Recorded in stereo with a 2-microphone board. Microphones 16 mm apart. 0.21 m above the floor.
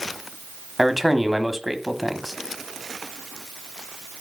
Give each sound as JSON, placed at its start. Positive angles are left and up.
{"t": 0.8, "sound": "a man speaking", "side_deg": -10, "distance_m": 1.2}